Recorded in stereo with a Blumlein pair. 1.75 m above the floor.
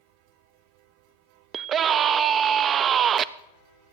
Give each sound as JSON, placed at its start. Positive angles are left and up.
{"t": 1.5, "sound": "a scream", "azimuth_deg": -25, "distance_m": 0.6}